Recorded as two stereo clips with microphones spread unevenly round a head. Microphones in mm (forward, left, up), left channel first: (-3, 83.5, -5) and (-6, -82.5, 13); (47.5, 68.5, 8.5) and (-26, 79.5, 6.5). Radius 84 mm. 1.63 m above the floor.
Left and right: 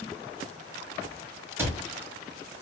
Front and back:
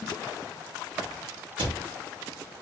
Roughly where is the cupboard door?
Behind.